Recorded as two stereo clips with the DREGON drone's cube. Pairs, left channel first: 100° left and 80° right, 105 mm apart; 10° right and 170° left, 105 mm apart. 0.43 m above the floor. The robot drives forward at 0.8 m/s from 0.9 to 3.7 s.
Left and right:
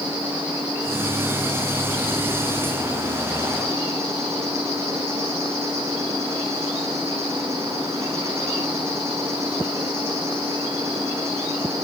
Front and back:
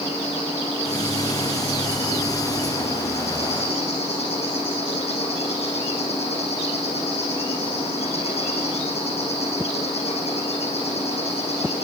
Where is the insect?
10° right, 7.5 m; by 11.8 s 15° right, 5 m.